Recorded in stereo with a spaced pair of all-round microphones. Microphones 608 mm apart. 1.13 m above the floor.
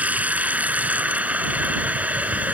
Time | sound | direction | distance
0.0 | running water | 5° right (ahead or behind) | ?